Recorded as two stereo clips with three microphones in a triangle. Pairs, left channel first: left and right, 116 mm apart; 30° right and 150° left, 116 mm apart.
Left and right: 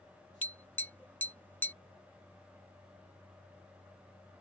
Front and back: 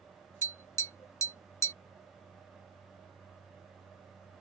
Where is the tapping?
25° left.